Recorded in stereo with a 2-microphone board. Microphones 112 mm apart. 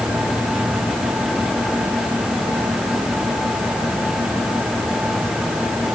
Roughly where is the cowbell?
I don't hear a cowbell.